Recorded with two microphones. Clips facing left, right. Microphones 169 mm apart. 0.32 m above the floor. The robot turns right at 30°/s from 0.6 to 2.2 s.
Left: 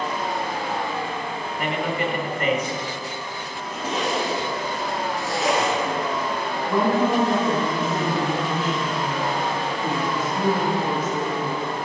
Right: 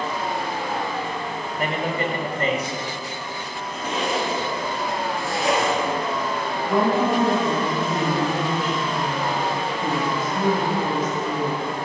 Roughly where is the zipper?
Centre.